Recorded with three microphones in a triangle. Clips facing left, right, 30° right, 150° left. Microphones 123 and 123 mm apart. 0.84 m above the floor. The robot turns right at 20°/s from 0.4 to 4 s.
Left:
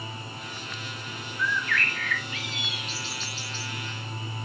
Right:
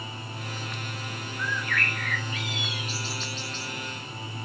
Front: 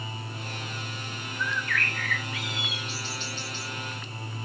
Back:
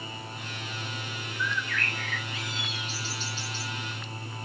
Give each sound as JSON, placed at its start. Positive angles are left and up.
{"t": 1.4, "sound": "a bird", "azimuth_deg": -35, "distance_m": 0.9}